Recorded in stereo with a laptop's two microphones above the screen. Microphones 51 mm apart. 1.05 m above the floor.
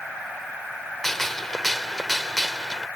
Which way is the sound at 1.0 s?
5° left (ahead or behind).